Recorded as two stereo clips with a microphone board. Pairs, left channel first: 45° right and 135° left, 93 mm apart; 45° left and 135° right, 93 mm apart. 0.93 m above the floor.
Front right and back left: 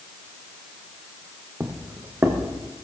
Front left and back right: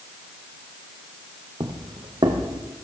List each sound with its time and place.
1.6 s footsteps: 160° right, 1.7 m